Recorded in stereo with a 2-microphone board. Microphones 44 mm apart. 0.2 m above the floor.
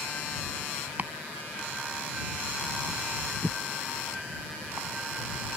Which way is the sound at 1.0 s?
45° right (ahead or behind).